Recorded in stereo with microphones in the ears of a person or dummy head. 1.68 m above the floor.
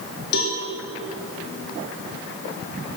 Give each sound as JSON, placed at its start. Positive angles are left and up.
{"t": 0.3, "sound": "a cowbell", "side_deg": 60, "distance_m": 2.0}